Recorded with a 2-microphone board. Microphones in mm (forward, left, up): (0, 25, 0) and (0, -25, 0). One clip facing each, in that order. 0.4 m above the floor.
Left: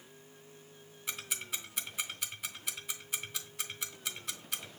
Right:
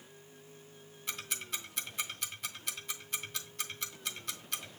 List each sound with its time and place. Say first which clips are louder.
1.1 s ticking: even; 10° left (ahead or behind), 0.7 m